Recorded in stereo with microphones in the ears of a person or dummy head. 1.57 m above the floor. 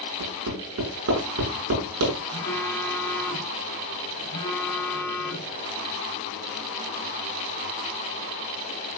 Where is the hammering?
80° right, 7.5 m.